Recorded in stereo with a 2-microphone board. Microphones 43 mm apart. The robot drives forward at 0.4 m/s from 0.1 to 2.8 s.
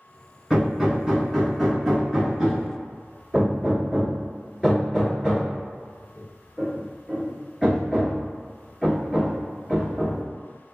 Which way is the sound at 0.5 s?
5° right (ahead or behind).